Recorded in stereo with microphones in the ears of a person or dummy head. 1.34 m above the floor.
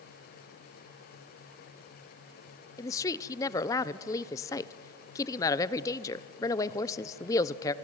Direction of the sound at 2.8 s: 20° left (ahead or behind).